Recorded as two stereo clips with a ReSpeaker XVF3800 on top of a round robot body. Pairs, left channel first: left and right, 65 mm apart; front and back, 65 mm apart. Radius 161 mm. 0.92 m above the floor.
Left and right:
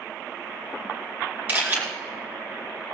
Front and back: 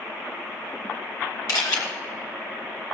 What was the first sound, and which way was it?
A camera shutter, 25° right.